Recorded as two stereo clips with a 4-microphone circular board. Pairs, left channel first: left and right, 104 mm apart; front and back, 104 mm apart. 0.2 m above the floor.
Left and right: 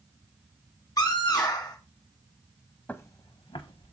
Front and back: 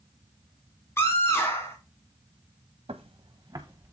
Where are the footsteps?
160° left, 0.7 m; by 3.9 s 115° left, 1.6 m.